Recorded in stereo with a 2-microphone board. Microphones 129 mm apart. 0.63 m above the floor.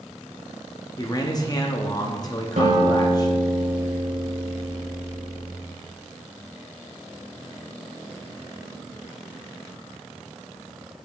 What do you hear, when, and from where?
1.0 s a man speaking: 30° left (ahead or behind), 0.7 m
2.6 s a guitar: 65° right (ahead or behind), 1.8 m